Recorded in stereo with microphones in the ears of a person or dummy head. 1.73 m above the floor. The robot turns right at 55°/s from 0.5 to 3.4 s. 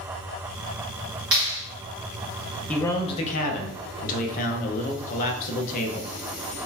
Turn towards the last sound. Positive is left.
turn(degrees=45)